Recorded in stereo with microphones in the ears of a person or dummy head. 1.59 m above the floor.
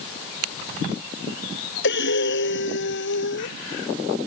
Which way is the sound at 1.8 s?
60° left (ahead or behind).